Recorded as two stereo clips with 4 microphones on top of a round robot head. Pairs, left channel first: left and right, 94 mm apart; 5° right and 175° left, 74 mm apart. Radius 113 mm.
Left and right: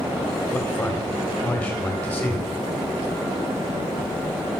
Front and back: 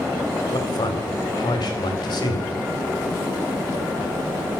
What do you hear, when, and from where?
0.5 s a man speaking: 20° left, 3.5 m